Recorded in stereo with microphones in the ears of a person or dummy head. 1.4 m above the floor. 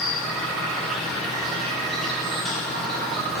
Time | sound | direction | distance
0.0 | an insect | 5° left (ahead or behind) | 1.1 m